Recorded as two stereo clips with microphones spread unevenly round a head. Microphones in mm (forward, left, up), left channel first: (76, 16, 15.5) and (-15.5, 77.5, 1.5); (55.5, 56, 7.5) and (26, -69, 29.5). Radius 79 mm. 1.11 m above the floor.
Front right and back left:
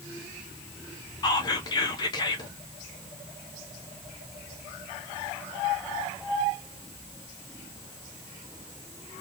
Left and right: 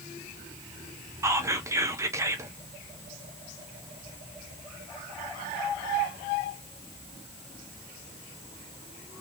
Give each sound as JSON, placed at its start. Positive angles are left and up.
{"t": 1.2, "sound": "whispering", "azimuth_deg": -40, "distance_m": 0.7}